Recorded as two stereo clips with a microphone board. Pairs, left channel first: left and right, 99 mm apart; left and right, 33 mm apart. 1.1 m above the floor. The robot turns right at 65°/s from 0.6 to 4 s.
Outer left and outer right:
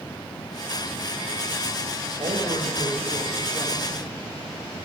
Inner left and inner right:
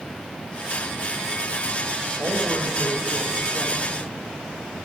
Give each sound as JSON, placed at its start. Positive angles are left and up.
{"t": 2.2, "sound": "a man speaking", "azimuth_deg": -110, "distance_m": 1.4}